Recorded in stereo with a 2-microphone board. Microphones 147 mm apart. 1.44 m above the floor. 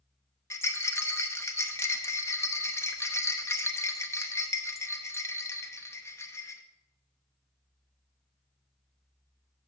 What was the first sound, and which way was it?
A rattle, 20° left (ahead or behind).